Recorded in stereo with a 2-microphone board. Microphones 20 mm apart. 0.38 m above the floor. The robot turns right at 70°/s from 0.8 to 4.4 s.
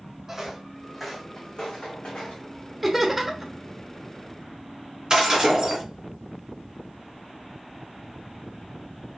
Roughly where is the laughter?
Centre.